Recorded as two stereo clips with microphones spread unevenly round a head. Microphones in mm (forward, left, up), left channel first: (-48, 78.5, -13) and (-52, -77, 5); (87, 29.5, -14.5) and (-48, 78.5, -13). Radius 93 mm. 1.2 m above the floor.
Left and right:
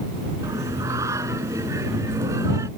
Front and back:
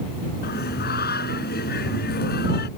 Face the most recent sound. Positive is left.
turn(degrees=-15)